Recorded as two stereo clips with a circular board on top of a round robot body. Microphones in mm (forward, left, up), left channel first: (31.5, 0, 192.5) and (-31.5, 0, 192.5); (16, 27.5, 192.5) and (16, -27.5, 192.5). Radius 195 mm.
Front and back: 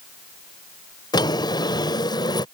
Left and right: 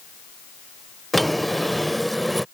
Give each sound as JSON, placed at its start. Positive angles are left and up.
{"t": 1.1, "sound": "a drawer", "azimuth_deg": 0}